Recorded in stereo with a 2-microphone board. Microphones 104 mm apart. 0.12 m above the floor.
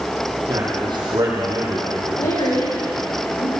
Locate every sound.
0.5 s a man speaking: 45° right (ahead or behind), 4.5 m
2.2 s a woman speaking: 70° left (ahead or behind), 7.5 m